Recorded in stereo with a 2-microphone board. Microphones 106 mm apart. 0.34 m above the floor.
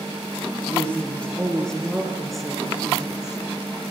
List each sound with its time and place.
0.7 s a woman speaking: 15° left (ahead or behind), 6 m; by 3.4 s 10° right (ahead or behind), 5.5 m